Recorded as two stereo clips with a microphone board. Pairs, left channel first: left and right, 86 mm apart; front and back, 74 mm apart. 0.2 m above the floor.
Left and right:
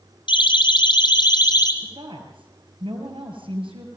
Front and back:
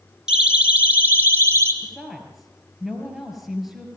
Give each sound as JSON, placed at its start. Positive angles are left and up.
{"t": 0.3, "sound": "a siren", "azimuth_deg": 100, "distance_m": 3.5}
{"t": 1.8, "sound": "a woman speaking", "azimuth_deg": -90, "distance_m": 5.0}